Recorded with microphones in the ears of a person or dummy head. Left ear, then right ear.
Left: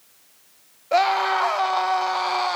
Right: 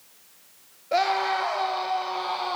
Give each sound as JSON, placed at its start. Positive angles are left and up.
{"t": 0.9, "sound": "a scream", "side_deg": 25, "distance_m": 2.0}